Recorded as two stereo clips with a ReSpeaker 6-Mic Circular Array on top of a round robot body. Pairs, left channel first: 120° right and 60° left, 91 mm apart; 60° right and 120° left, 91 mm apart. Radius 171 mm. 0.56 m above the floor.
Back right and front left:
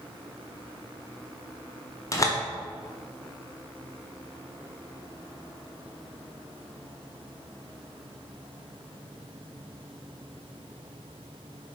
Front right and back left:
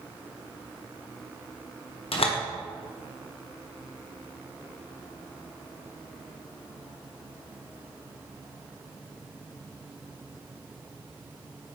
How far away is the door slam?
About 1.4 m.